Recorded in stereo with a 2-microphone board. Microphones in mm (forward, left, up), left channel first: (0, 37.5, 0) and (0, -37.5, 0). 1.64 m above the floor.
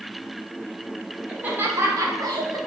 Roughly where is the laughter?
Centre.